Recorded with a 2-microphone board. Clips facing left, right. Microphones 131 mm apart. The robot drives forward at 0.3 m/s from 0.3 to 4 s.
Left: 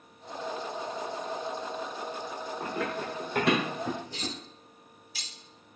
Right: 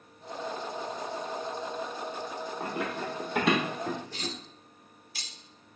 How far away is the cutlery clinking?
About 0.8 m.